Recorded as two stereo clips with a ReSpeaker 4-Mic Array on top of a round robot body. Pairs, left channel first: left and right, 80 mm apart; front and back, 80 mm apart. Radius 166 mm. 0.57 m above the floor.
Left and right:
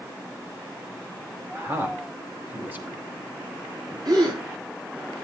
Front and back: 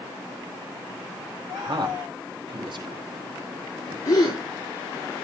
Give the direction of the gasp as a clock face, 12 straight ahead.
2 o'clock.